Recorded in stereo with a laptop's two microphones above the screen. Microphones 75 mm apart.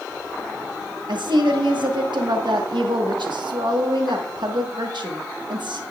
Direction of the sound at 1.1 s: 85° right.